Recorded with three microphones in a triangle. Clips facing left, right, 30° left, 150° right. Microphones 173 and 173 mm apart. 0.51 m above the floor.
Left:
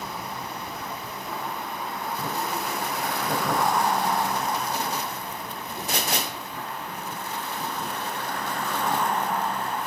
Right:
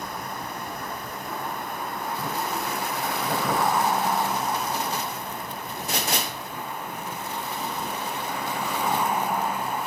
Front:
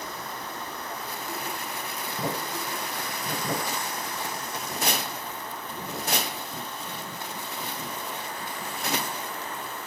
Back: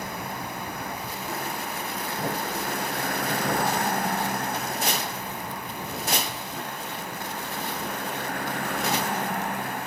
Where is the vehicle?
175° left; by 9.9 s 175° right.